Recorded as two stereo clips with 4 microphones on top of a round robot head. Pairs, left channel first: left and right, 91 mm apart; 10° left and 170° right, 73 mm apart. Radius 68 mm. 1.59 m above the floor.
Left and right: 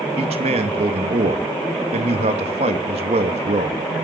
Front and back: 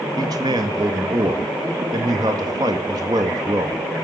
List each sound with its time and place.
0.2 s a man speaking: 120° right, 2 m